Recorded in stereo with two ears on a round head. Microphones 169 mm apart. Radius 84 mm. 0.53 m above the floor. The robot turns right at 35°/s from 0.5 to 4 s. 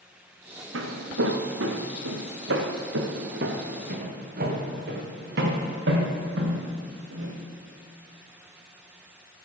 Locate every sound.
0.7 s footsteps: 70° right (ahead or behind), 2 m; by 7.3 s 75° right (ahead or behind), 4 m